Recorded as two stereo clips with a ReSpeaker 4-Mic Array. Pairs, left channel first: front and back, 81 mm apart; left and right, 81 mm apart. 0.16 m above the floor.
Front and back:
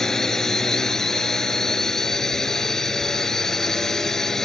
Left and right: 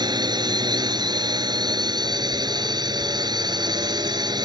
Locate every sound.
0.0 s a drone: 85° right